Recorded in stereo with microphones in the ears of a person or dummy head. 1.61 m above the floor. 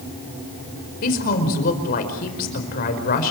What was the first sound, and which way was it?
A woman speaking, 45° left (ahead or behind).